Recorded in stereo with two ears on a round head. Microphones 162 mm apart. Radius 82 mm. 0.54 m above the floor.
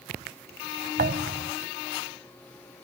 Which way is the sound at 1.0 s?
50° right (ahead or behind).